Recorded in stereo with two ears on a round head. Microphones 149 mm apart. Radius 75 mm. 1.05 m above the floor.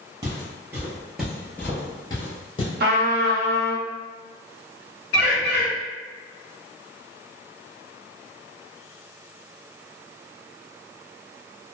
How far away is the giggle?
I don't hear a giggle.